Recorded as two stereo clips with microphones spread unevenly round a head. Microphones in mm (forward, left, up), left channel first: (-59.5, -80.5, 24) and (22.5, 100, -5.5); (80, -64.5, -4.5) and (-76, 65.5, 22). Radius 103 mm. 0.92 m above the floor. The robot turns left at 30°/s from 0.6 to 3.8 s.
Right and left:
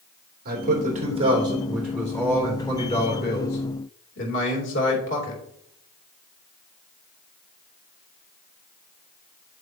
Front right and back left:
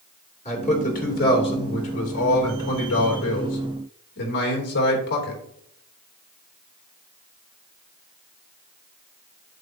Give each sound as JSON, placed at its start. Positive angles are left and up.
{"t": 0.5, "sound": "a man speaking", "azimuth_deg": 20, "distance_m": 3.0}